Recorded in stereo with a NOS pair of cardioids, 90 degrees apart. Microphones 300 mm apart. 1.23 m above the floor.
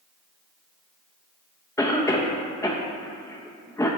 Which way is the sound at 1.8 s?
10° left.